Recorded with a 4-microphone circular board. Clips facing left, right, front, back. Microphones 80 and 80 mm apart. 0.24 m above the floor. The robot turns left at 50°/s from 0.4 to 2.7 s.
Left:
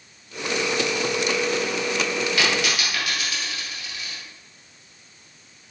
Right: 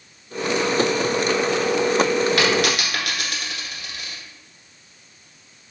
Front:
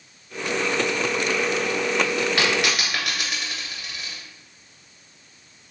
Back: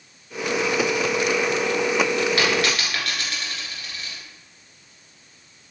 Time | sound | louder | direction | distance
2.4 | a dropped coin | right 4 dB, back 1 dB | 60° right | 1.7 m